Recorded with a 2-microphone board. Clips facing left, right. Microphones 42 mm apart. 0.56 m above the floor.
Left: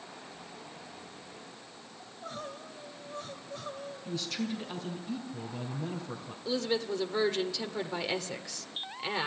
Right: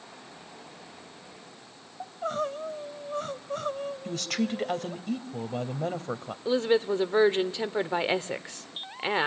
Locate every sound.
2.0 s crying: 55° right (ahead or behind), 1.5 m
4.0 s a woman speaking: 60° right (ahead or behind), 2.5 m
6.5 s a woman speaking: 30° right (ahead or behind), 1.3 m